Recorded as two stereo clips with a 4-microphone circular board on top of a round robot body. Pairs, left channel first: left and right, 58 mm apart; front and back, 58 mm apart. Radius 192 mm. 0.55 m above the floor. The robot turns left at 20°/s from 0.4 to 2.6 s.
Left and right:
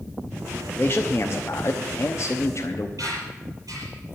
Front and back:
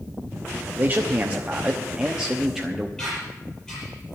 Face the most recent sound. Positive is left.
turn(degrees=-85)